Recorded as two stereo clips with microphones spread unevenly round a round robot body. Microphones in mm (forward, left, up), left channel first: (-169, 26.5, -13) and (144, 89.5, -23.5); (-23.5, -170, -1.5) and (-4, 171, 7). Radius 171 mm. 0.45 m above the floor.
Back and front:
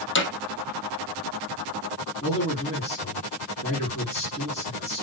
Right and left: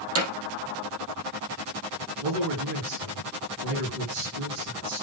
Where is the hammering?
140° left, 3 m.